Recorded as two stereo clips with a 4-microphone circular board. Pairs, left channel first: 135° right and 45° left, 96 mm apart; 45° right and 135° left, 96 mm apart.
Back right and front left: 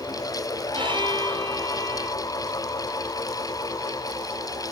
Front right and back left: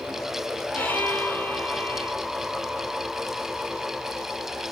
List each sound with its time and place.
0.7 s a violin: 20° left, 3 m